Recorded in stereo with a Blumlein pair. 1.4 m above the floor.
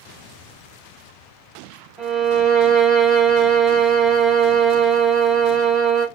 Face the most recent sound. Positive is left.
turn(degrees=-25)